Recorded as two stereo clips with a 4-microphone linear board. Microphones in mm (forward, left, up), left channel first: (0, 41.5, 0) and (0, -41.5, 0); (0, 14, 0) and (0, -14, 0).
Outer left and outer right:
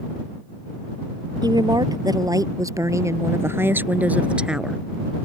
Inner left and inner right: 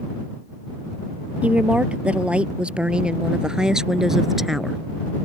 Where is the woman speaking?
55° right (ahead or behind); by 4.8 s 5° right (ahead or behind).